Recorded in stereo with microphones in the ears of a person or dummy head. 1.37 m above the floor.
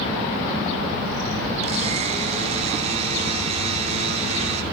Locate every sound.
1.6 s a blender: 30° right (ahead or behind), 0.6 m